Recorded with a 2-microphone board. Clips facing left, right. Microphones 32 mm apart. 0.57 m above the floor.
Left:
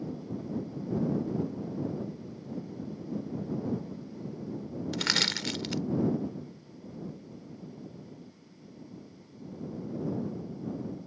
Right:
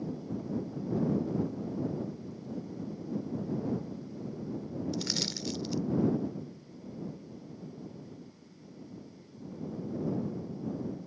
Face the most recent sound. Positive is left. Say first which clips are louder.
# left 10 dB
turn(degrees=70)  # may be behind; listen again after turning